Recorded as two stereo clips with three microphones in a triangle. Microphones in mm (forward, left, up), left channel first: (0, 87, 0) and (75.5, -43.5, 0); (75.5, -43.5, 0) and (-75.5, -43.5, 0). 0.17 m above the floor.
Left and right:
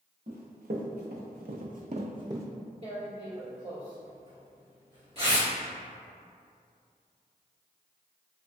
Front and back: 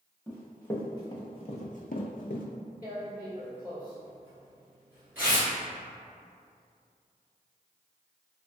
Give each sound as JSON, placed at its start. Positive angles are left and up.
{"t": 0.3, "sound": "running footsteps", "azimuth_deg": -80, "distance_m": 1.1}
{"t": 2.8, "sound": "tearing paper", "azimuth_deg": -100, "distance_m": 1.8}